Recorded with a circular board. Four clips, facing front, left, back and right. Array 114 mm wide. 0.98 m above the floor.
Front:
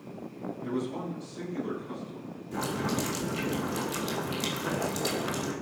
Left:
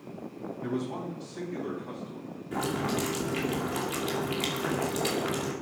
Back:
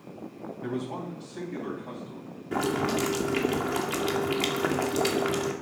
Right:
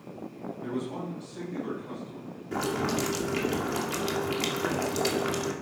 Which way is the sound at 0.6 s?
170° left.